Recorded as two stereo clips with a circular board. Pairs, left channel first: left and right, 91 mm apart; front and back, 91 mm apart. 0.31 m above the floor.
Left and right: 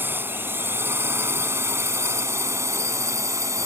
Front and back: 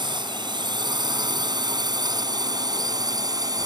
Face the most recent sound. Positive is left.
turn(degrees=-140)